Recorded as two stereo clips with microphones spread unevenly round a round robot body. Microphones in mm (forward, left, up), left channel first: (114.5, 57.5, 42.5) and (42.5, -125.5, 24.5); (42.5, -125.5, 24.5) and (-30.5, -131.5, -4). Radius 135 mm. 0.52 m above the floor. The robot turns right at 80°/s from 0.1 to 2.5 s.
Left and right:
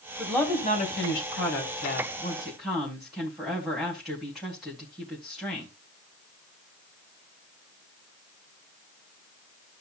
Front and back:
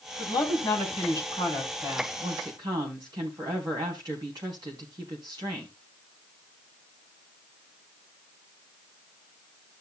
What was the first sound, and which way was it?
A woman speaking, 25° right.